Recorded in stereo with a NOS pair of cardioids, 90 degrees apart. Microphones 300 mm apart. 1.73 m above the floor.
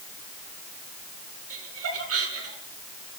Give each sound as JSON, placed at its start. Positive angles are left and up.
{"t": 1.5, "sound": "laughter", "azimuth_deg": -50, "distance_m": 8.0}